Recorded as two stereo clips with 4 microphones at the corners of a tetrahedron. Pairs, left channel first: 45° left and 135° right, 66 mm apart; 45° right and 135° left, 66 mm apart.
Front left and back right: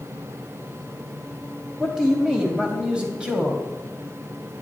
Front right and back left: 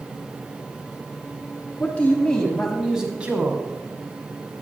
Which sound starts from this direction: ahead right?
A man speaking, at 1.8 s.